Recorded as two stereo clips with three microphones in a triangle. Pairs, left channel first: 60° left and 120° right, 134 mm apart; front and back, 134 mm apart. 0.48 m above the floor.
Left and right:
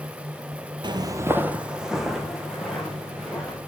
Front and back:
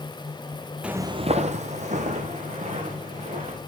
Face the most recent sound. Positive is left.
turn(degrees=145)